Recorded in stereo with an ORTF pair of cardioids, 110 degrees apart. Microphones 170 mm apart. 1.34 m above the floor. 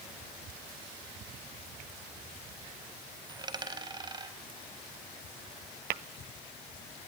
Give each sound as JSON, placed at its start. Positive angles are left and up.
{"t": 3.3, "sound": "a dropped coin", "azimuth_deg": -25, "distance_m": 3.5}
{"t": 5.9, "sound": "tapping", "azimuth_deg": -70, "distance_m": 0.9}